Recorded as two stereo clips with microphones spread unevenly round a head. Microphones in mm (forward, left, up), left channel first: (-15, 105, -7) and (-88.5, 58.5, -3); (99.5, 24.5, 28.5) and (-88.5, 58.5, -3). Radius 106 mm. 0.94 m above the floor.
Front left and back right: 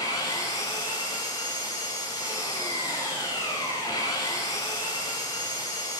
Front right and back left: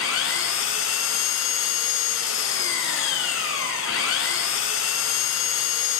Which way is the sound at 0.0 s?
40° right.